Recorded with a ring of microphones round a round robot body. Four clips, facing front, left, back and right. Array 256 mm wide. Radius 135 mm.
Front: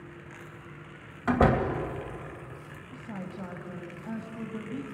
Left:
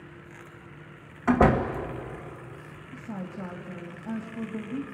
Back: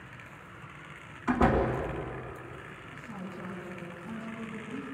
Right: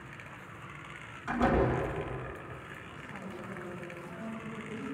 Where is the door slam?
55° left, 2.5 m.